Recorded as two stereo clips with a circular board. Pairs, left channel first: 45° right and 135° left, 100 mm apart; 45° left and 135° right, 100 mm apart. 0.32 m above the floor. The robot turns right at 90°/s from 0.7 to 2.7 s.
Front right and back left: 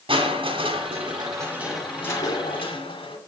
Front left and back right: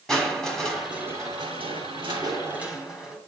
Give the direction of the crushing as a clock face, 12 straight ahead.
8 o'clock.